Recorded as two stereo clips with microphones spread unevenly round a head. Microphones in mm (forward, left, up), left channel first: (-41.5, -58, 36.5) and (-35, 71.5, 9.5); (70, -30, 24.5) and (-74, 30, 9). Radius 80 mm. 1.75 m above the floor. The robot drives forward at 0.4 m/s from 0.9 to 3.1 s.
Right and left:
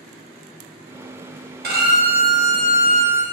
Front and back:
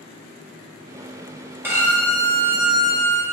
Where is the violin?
80° left, 1.4 m; by 3.2 s 105° left, 1.4 m.